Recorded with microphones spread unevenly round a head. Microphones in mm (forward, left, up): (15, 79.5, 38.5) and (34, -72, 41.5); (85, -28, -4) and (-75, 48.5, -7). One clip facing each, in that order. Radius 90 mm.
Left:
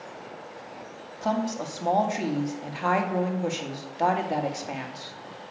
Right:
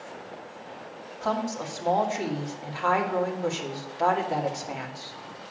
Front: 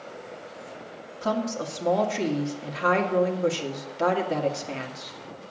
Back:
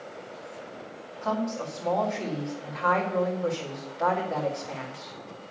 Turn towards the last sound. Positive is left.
turn(degrees=25)